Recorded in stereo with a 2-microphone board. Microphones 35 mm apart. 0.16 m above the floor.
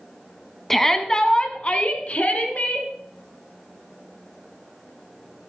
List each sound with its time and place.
0.7 s a shout: 10° left (ahead or behind), 1.1 m; by 2.9 s 50° left (ahead or behind), 1.9 m